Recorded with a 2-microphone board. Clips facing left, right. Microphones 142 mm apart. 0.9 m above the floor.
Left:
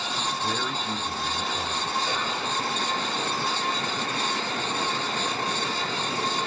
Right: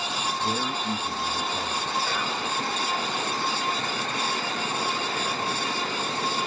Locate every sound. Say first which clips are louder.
0.4 s a man speaking: right 1 dB; 50° right (ahead or behind), 1.3 m
2.0 s whispering: even; centre (ahead or behind), 2.5 m